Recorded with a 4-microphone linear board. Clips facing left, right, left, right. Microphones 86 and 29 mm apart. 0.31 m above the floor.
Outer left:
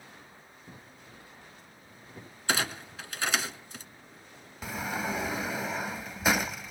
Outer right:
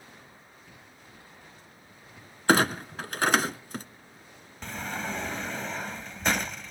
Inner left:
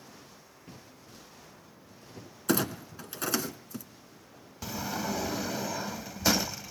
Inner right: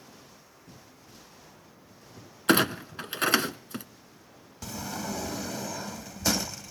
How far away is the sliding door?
About 0.6 m.